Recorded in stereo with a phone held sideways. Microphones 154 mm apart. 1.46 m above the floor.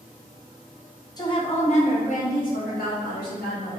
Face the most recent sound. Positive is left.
turn(degrees=80)